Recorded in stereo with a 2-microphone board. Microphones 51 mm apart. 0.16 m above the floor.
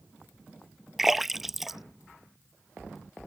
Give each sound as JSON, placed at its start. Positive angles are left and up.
{"t": 1.0, "sound": "a splash", "side_deg": -5}